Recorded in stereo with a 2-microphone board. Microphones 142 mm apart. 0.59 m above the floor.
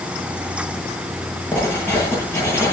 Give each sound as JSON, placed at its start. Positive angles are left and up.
{"t": 1.5, "sound": "writing", "side_deg": 15, "distance_m": 9.5}